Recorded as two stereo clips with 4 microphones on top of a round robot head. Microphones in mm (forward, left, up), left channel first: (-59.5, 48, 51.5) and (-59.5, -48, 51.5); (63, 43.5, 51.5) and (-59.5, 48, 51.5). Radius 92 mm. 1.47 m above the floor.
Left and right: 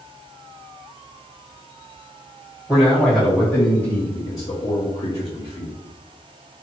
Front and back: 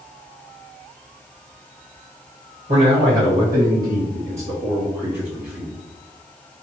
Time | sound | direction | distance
2.7 | a man speaking | straight behind | 1.6 m